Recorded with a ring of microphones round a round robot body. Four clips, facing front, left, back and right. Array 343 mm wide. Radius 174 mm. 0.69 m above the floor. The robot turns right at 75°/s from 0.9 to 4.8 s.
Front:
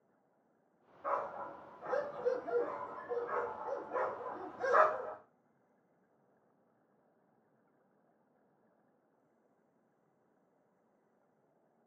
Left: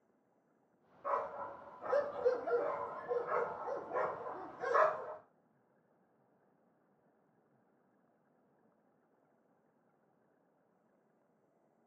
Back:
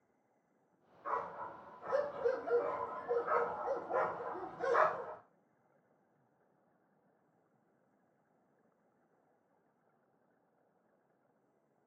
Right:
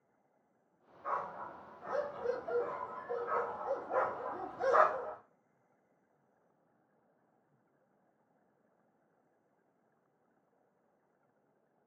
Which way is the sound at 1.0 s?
5° left.